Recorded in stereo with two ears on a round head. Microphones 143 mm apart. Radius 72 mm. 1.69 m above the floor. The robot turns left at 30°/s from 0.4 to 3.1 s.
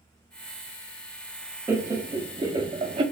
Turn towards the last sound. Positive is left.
turn(degrees=-70)